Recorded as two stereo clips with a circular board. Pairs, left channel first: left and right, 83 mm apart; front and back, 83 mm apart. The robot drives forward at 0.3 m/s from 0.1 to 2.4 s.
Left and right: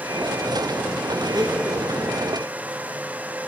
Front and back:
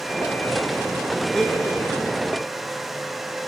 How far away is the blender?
About 0.8 m.